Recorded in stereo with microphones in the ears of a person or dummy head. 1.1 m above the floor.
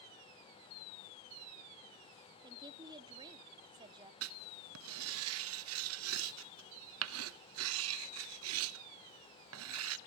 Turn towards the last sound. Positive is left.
turn(degrees=-70)  # may be behind; listen again after turning